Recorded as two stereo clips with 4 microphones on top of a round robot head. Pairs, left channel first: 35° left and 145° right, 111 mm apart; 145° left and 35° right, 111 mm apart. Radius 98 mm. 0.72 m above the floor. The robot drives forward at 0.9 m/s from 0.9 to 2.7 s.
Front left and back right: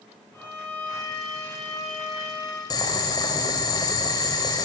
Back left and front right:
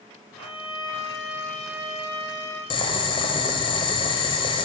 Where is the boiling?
95° left, 1.0 m.